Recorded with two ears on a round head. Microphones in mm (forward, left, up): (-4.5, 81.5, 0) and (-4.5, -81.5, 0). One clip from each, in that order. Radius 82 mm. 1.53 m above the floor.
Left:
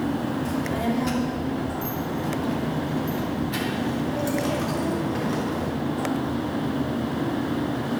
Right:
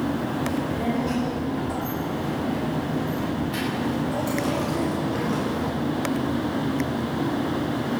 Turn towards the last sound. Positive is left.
turn(degrees=0)  # may be behind; listen again after turning